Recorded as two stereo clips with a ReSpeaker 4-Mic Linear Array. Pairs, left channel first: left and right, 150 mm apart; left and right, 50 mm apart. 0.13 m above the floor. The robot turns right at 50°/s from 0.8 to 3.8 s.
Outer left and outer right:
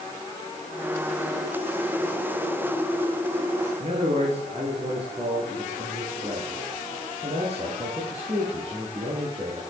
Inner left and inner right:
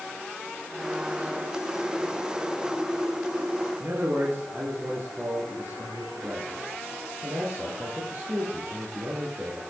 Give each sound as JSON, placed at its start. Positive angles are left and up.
{"t": 3.8, "sound": "a man speaking", "side_deg": -45, "distance_m": 2.0}